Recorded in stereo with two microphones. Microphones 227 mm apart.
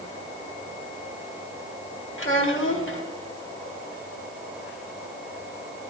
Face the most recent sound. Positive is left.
turn(degrees=65)  # may be behind; listen again after turning